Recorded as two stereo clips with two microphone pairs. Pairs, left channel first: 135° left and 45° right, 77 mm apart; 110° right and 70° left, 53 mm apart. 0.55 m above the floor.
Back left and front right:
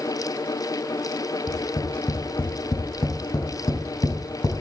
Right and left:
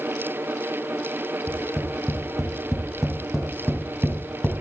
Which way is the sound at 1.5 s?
155° left.